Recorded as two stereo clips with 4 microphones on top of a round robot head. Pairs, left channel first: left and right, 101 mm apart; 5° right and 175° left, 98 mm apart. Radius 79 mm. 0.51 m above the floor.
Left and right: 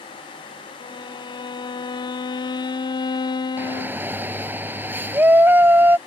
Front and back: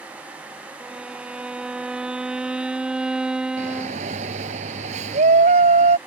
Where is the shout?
160° right.